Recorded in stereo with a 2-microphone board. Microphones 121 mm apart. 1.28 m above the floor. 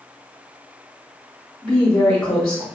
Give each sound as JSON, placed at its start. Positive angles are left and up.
{"t": 1.6, "sound": "a woman speaking", "side_deg": 25, "distance_m": 2.0}